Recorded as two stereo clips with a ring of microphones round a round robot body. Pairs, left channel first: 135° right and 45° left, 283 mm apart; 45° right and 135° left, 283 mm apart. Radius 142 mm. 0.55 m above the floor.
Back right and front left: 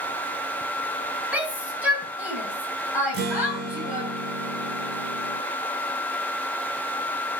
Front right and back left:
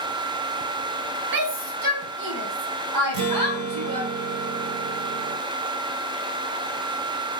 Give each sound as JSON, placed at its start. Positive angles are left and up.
{"t": 1.3, "sound": "a shout", "azimuth_deg": 130, "distance_m": 2.0}
{"t": 3.1, "sound": "a guitar", "azimuth_deg": 105, "distance_m": 1.6}